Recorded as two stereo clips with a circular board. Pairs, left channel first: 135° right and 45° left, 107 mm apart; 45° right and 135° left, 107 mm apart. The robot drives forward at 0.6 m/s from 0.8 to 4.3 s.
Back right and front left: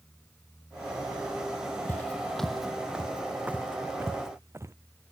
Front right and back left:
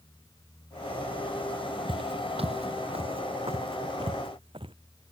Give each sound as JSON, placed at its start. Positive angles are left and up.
{"t": 1.9, "sound": "footsteps", "azimuth_deg": 160}